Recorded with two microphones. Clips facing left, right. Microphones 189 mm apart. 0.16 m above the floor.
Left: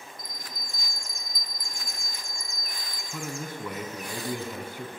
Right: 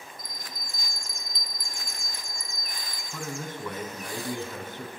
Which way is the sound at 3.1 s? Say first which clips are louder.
Even; 10° left (ahead or behind).